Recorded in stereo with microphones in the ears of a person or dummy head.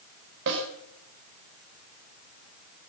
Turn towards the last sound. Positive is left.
turn(degrees=-65)  # may be behind; listen again after turning